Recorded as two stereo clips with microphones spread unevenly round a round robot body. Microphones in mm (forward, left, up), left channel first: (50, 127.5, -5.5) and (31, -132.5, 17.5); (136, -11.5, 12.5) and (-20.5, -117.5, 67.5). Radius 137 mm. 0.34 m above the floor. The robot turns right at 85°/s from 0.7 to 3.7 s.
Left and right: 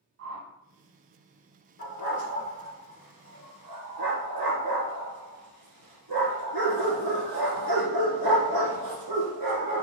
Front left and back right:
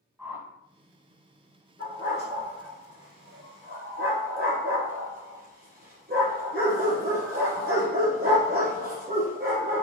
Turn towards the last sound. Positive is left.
turn(degrees=-110)